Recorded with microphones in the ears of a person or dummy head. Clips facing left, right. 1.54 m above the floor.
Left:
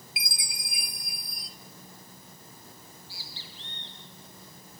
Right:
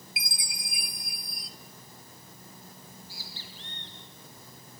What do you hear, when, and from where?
0.2 s a chime: 70° left (ahead or behind), 2.5 m
2.8 s a bird: 40° right (ahead or behind), 5 m